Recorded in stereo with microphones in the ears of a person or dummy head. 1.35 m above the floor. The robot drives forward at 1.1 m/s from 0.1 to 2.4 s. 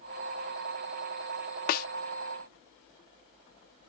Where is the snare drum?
50° left (ahead or behind).